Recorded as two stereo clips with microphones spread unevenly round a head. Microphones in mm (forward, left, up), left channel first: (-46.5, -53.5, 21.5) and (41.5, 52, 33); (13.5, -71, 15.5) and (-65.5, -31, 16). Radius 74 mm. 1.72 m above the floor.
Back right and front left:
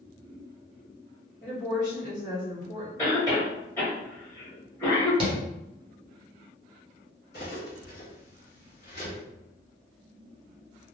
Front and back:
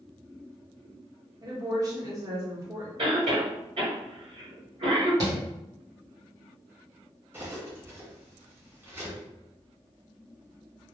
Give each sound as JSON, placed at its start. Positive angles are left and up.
{"t": 1.4, "sound": "a woman speaking", "azimuth_deg": -165, "distance_m": 1.1}
{"t": 3.0, "sound": "a cough", "azimuth_deg": 155, "distance_m": 1.4}
{"t": 5.2, "sound": "tapping", "azimuth_deg": 95, "distance_m": 0.8}
{"t": 7.3, "sound": "cutlery clinking", "azimuth_deg": -150, "distance_m": 1.7}